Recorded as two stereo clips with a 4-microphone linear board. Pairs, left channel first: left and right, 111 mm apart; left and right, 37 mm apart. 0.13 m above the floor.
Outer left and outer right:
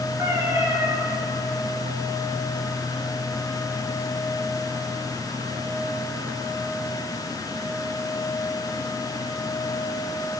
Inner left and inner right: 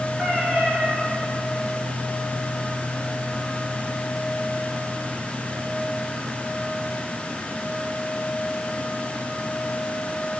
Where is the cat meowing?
30° right (ahead or behind), 9 m.